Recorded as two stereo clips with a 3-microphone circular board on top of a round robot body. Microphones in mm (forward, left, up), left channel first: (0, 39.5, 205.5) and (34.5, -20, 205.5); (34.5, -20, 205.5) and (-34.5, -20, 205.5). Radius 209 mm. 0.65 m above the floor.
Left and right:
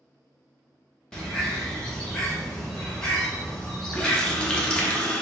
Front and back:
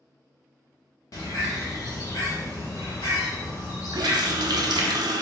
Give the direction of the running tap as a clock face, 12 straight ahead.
5 o'clock.